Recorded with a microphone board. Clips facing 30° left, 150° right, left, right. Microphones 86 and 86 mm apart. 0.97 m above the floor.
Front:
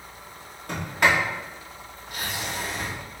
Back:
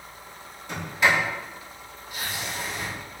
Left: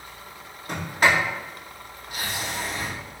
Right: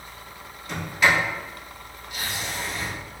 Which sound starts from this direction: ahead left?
A sliding door, at 0.7 s.